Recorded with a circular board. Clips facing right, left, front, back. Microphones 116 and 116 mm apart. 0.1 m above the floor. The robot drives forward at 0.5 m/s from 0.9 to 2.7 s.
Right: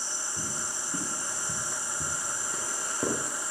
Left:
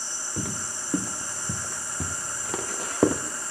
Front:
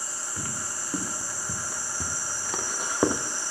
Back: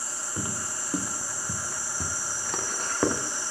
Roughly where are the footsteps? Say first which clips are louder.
Left 7 dB, back 3 dB; left.